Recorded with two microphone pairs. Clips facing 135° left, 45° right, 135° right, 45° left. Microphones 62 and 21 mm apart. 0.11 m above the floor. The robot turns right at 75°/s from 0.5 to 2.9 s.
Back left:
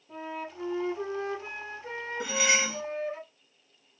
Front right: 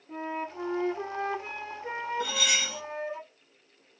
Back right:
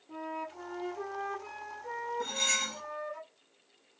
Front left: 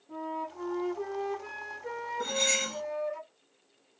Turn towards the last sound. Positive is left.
turn(degrees=140)